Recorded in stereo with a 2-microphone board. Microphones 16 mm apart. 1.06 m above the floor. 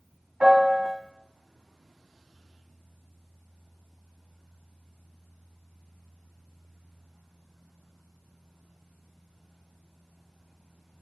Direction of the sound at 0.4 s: 70° right (ahead or behind).